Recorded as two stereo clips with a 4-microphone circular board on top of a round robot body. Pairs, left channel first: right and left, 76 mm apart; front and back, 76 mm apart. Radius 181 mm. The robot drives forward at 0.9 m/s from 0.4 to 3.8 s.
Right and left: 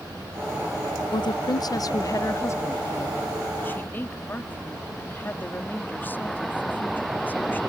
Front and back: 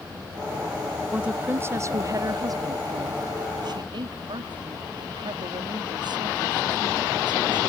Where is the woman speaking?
100° right; by 7.6 s 155° right.